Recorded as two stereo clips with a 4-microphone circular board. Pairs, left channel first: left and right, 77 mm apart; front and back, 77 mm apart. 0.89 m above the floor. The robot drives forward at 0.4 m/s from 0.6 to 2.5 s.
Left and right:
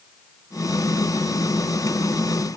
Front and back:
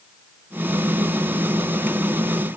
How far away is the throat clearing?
No throat clearing in this recording.